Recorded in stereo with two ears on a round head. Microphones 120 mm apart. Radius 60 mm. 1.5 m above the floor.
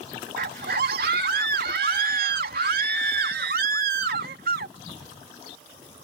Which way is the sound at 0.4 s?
80° right.